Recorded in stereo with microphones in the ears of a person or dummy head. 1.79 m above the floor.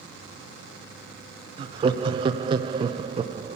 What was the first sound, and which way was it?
Laughter, 30° right (ahead or behind).